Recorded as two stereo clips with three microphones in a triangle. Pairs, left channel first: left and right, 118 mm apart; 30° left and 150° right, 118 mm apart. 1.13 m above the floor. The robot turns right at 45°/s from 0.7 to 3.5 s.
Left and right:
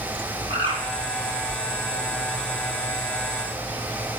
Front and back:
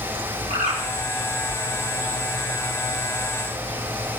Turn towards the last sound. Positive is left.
turn(degrees=-15)